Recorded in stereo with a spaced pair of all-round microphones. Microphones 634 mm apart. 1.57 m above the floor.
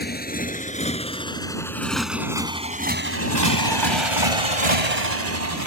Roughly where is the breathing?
I don't hear breathing.